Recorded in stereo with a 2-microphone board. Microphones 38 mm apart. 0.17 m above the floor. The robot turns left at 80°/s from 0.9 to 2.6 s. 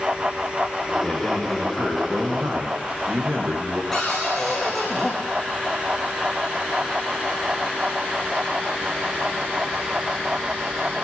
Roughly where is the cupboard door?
Centre.